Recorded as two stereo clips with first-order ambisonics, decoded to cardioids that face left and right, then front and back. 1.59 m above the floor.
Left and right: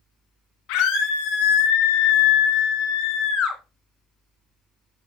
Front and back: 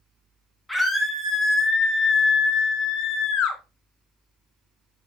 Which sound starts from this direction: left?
A scream, at 0.7 s.